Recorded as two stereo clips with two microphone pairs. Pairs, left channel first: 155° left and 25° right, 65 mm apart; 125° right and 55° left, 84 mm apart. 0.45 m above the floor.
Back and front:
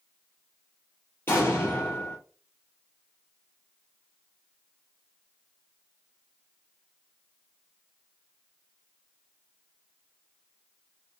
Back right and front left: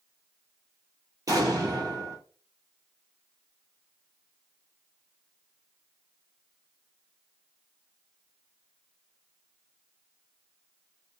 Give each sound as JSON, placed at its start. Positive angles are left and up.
{"t": 1.3, "sound": "an explosion", "azimuth_deg": 100, "distance_m": 1.7}